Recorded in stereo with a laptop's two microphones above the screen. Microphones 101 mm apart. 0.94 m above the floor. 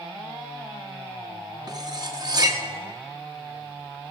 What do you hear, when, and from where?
1.7 s cutlery clinking: 40° right (ahead or behind), 0.7 m